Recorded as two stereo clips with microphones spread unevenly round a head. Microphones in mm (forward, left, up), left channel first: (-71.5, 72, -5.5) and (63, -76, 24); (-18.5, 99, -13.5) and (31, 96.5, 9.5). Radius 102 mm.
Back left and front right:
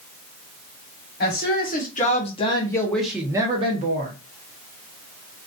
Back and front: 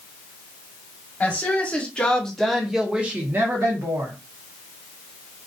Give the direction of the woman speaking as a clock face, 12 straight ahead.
7 o'clock.